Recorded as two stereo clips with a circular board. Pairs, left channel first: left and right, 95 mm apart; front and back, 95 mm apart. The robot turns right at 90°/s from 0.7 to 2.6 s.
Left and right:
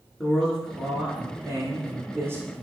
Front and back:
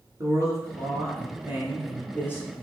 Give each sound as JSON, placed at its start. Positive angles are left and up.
{"t": 0.2, "sound": "a man speaking", "azimuth_deg": 170, "distance_m": 1.3}